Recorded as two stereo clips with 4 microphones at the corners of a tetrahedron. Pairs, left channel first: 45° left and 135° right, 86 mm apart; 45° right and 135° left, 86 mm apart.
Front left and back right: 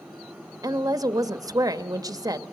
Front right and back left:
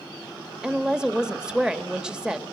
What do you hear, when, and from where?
0.6 s a woman speaking: 145° right, 1.1 m